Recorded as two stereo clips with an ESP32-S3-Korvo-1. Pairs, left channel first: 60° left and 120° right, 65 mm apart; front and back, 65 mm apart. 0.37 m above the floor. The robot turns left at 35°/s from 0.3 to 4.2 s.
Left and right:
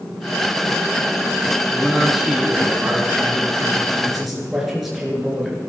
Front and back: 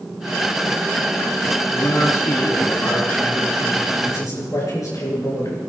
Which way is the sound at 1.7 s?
15° right.